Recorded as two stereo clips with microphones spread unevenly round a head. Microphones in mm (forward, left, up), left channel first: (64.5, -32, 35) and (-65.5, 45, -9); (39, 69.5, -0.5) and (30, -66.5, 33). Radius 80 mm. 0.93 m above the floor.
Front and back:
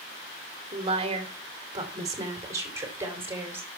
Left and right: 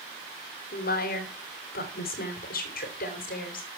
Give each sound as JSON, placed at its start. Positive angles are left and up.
{"t": 0.7, "sound": "a woman speaking", "azimuth_deg": 100, "distance_m": 2.5}